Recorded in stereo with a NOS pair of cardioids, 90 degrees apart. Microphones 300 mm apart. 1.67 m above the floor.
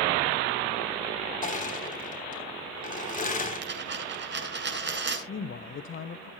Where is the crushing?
30° left, 3 m.